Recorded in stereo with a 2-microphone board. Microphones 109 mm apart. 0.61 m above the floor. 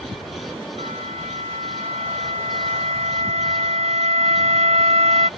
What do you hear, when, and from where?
0.8 s a flute: 80° right